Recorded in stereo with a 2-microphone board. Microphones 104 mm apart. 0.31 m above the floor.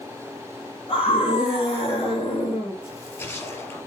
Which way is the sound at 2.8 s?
25° left (ahead or behind).